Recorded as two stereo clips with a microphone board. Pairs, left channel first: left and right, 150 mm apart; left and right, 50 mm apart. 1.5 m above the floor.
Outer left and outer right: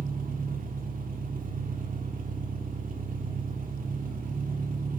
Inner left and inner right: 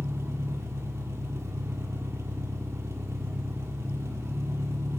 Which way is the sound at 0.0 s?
65° right (ahead or behind).